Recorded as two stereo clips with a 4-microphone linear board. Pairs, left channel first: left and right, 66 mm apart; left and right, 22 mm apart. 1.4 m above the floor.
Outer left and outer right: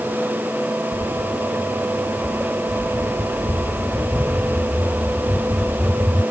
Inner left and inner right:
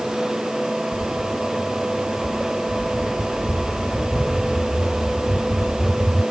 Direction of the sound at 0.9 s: 10° right (ahead or behind).